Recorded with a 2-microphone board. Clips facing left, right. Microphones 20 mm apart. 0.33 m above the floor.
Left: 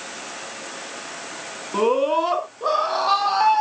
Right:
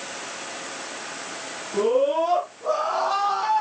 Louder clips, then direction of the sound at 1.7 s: Left 1 dB; 55° left (ahead or behind).